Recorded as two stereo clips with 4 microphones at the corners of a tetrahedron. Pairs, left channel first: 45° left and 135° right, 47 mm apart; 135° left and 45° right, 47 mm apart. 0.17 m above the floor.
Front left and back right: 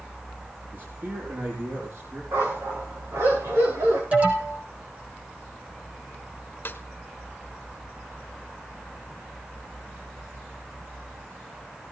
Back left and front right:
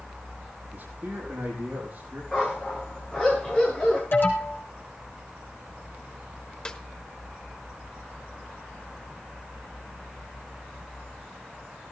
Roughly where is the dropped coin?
No dropped coin in this recording.